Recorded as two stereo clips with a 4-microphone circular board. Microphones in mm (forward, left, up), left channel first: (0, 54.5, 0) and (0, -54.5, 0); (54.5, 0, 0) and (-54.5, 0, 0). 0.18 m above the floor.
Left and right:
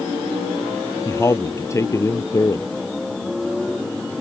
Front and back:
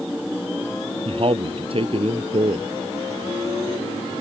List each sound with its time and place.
1.1 s a man speaking: 150° left